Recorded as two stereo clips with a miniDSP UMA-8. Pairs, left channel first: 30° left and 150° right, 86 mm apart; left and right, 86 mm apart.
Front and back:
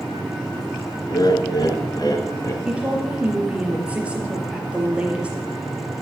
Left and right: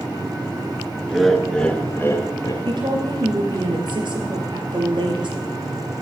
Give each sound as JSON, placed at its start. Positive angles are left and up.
{"t": 1.1, "sound": "laughter", "azimuth_deg": 0, "distance_m": 2.0}
{"t": 2.6, "sound": "a woman speaking", "azimuth_deg": -75, "distance_m": 4.0}